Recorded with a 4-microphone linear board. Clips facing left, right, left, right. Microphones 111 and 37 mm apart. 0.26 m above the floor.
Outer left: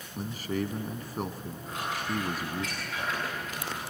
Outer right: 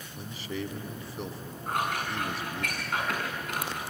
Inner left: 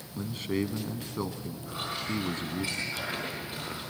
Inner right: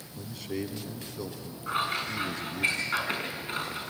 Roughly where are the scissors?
Right.